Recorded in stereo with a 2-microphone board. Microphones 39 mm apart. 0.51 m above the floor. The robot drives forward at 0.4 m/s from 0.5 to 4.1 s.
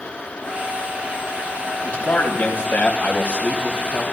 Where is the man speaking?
65° left (ahead or behind), 3 m; by 4.0 s 50° left (ahead or behind), 3.5 m.